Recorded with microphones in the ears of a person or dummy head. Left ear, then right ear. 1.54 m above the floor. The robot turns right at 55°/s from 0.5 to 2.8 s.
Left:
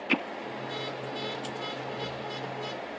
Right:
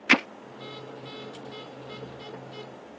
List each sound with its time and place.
0.1 s hammering: 65° right (ahead or behind)